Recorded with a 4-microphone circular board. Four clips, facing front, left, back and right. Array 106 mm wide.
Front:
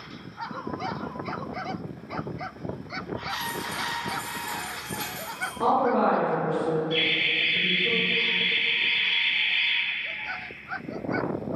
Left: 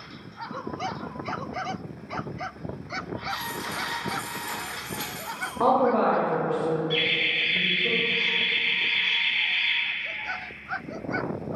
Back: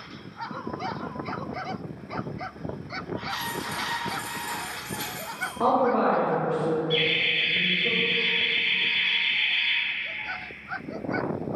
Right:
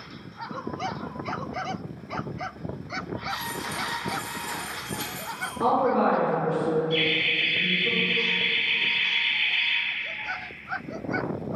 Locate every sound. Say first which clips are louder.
3.3 s keys jangling: left 1 dB, even; 80° left, 1.7 m; by 5.5 s 5° right, 1.1 m
5.6 s a woman speaking: left 1 dB, even; 105° left, 1.0 m
6.9 s laughter: right 2 dB, back 1 dB; 105° left, 1.3 m